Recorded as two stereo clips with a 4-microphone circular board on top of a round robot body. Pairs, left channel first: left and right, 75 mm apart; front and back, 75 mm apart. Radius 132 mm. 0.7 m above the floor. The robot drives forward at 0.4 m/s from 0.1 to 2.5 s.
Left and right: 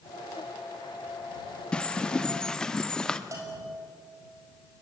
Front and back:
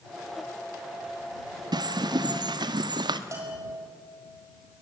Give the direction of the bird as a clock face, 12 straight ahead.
6 o'clock.